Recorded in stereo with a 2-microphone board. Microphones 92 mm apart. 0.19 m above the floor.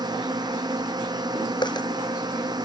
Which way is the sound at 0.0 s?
50° right (ahead or behind).